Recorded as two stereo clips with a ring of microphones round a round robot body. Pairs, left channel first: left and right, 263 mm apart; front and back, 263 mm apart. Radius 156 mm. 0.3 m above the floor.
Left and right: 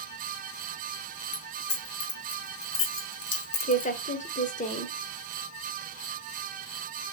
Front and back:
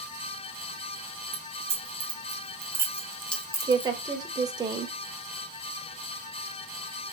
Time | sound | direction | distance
1.3 | keys jangling | 115° left | 2.0 m
3.6 | a woman speaking | 120° left | 1.1 m